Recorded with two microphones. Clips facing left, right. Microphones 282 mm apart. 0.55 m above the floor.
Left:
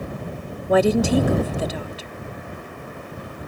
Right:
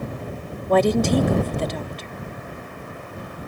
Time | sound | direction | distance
0.7 | a woman speaking | 5° left (ahead or behind) | ?